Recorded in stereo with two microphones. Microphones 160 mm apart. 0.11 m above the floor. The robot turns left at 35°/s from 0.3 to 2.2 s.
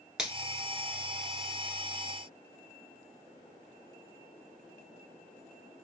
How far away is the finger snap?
About 1.2 m.